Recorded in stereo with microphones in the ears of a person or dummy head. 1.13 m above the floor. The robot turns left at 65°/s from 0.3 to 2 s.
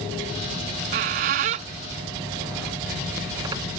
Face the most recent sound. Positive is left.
turn(degrees=-20)  # may be behind; listen again after turning